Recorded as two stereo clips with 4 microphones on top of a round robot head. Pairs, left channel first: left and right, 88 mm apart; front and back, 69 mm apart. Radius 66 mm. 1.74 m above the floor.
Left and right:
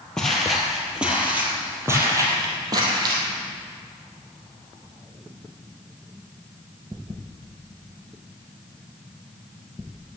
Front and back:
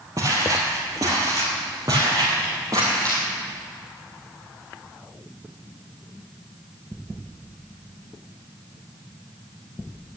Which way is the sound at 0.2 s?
170° left.